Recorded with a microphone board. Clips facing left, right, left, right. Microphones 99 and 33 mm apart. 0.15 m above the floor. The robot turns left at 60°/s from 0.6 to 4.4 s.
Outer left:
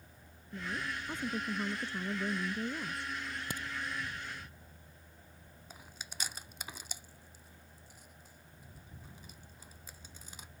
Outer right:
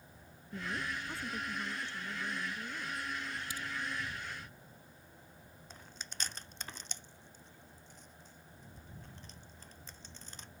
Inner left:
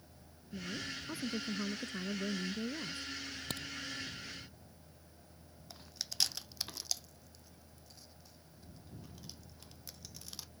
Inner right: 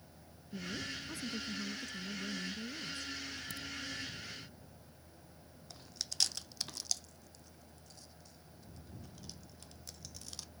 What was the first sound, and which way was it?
A woman speaking, 175° right.